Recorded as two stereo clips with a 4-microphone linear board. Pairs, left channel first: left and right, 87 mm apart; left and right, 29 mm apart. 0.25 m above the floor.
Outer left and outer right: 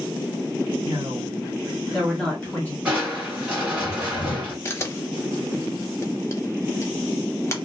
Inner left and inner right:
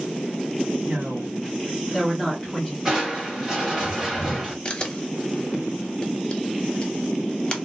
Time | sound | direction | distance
0.8 | a woman speaking | 40° right (ahead or behind) | 1.4 m
2.9 | crushing | 15° right (ahead or behind) | 2.0 m
4.7 | a camera shutter | 30° left (ahead or behind) | 0.6 m